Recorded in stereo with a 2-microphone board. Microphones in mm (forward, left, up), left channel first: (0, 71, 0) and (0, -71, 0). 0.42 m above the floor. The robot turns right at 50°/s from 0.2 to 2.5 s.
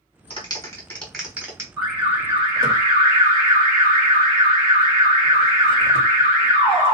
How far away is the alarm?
About 2.5 m.